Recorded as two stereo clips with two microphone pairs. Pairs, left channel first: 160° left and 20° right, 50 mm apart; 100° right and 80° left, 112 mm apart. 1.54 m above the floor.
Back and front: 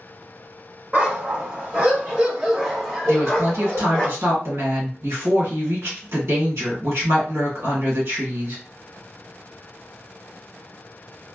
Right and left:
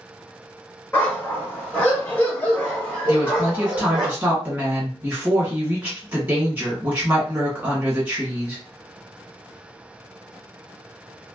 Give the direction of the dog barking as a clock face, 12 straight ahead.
1 o'clock.